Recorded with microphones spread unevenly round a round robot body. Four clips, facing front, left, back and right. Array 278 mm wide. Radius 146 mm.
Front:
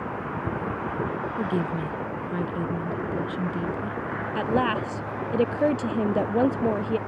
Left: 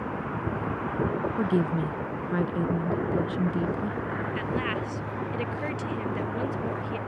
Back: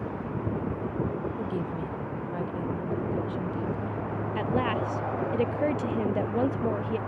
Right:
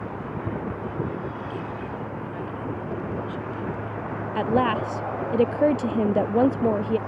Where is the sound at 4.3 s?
60° right.